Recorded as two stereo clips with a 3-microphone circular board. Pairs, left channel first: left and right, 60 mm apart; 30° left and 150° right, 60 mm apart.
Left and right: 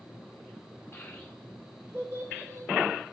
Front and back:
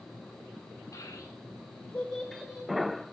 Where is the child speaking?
35° left, 1.0 m; by 2.7 s 65° right, 1.9 m.